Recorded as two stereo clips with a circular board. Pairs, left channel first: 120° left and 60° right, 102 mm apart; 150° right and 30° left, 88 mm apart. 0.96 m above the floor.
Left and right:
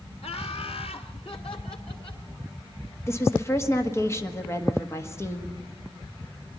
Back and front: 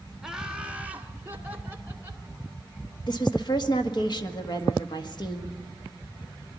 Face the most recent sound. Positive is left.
turn(degrees=180)